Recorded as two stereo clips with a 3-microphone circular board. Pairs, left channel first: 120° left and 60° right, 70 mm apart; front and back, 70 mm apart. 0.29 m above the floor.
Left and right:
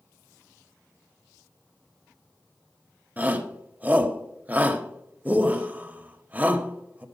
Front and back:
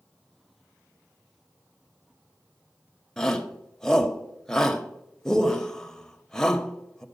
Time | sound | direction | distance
3.2 | a shout | 70° right | 1.1 m